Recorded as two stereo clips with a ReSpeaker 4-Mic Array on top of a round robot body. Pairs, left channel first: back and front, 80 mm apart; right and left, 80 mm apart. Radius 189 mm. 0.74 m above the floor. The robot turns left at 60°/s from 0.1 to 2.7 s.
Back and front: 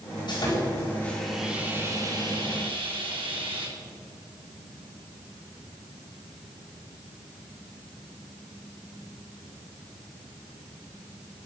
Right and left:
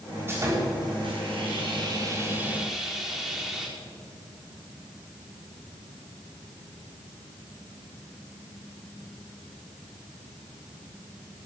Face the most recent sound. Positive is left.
turn(degrees=5)